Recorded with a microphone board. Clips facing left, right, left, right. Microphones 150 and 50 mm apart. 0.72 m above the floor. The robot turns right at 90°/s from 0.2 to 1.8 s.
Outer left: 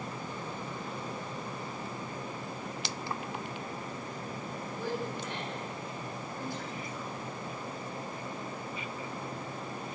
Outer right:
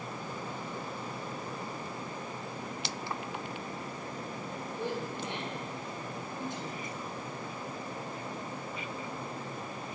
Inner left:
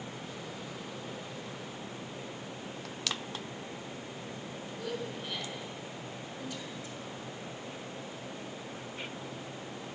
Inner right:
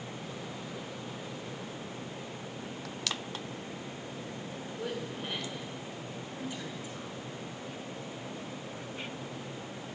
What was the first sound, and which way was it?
A woman speaking, 20° right (ahead or behind).